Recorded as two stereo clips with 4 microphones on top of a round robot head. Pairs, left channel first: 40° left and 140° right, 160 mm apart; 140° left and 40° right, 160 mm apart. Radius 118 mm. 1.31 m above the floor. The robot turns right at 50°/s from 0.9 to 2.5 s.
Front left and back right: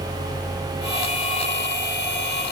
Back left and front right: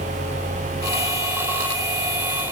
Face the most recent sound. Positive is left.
No sound to turn to.